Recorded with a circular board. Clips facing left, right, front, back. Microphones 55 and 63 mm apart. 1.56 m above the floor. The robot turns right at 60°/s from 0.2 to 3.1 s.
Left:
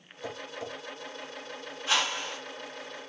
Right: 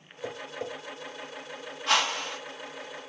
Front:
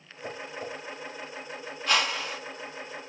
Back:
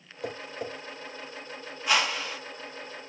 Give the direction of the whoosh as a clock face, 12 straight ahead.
3 o'clock.